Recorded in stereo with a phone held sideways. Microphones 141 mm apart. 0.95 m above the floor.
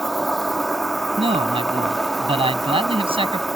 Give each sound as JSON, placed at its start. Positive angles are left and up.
{"t": 0.0, "sound": "an insect", "side_deg": 0}
{"t": 1.2, "sound": "a man speaking", "side_deg": -40}